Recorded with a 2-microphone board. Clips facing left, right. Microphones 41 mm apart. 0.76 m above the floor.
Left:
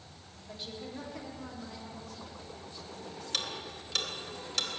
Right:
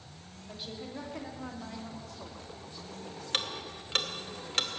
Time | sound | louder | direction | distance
0.5 | a woman speaking | right 1 dB | 5° right (ahead or behind) | 2.0 m
3.3 | ticking | right 3 dB | 40° right (ahead or behind) | 1.0 m